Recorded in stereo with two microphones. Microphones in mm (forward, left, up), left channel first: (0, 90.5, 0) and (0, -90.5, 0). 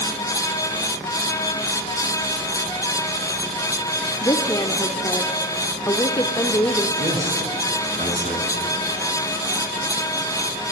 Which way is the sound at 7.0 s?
45° right (ahead or behind).